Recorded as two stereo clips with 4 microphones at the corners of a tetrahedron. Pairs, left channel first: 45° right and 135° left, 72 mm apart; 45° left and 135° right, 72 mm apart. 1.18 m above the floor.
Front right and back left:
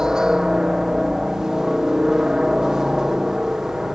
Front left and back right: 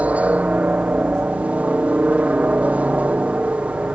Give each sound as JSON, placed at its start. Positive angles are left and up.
{"t": 0.0, "sound": "a helicopter", "azimuth_deg": -155}